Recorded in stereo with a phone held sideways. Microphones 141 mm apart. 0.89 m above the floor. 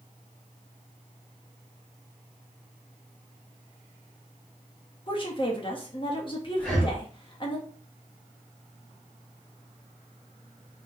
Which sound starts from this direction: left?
A woman speaking, at 5.1 s.